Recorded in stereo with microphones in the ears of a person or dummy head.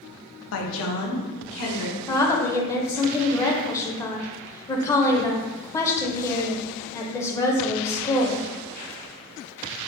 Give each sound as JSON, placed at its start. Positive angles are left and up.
{"t": 0.5, "sound": "a woman speaking", "side_deg": 65, "distance_m": 0.6}
{"t": 2.1, "sound": "a woman speaking", "side_deg": 20, "distance_m": 0.6}